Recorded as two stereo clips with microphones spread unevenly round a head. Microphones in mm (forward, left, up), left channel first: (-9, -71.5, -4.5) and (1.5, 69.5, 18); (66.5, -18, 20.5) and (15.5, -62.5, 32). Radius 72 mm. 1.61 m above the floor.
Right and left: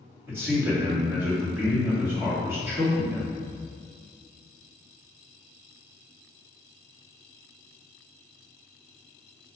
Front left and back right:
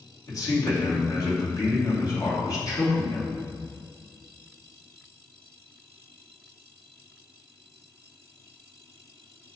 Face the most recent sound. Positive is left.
turn(degrees=10)